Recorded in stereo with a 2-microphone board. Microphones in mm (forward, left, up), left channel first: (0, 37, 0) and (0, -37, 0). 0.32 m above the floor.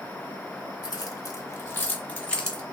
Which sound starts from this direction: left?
Keys jangling, at 0.8 s.